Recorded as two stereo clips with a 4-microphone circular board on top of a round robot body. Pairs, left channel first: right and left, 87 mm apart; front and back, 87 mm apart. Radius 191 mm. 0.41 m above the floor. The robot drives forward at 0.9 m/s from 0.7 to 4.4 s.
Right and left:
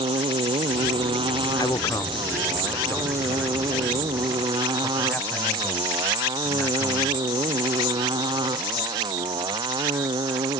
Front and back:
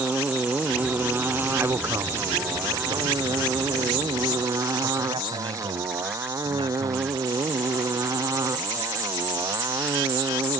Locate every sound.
0.0 s a motorcycle: 110° left; by 10.6 s 125° left
1.6 s a man speaking: 120° right; by 7.2 s 160° right